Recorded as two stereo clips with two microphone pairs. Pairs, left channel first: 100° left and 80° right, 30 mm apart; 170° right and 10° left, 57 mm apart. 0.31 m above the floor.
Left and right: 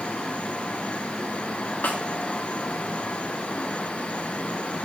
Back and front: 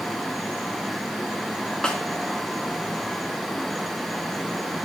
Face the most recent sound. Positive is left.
turn(degrees=115)